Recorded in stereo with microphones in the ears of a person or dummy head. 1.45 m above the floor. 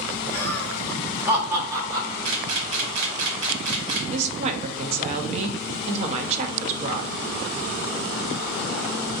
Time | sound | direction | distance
0.3 | laughter | 15° left (ahead or behind) | 1.1 m
2.2 | a camera shutter | 70° right (ahead or behind) | 0.9 m
4.1 | a woman speaking | 40° right (ahead or behind) | 0.6 m